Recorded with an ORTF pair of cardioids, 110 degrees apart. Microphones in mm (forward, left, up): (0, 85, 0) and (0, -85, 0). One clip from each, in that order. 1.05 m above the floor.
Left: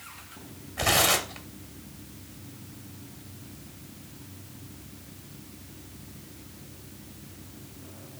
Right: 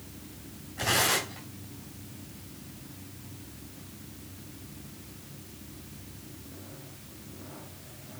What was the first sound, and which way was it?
Tearing paper, 50° left.